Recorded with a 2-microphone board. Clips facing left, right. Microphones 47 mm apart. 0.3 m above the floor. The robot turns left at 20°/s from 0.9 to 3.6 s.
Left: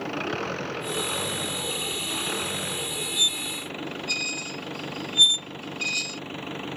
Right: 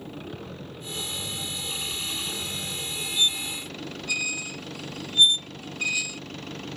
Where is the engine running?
80° left; by 6.8 s 25° left.